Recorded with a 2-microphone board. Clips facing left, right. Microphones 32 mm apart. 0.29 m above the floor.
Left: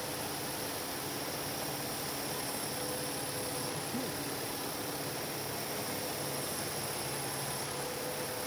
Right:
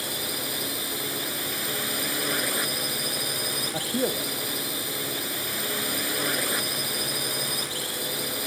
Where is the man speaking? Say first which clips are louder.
Right 10 dB; 70° right (ahead or behind).